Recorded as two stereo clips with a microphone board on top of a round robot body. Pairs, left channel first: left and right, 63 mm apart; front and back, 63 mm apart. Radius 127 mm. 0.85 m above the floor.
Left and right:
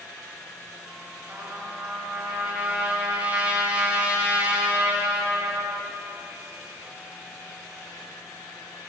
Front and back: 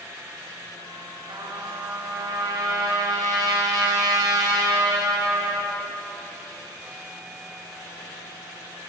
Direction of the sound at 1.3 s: 160° right.